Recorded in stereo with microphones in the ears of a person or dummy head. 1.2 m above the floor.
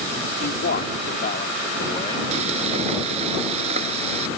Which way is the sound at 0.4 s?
60° left (ahead or behind).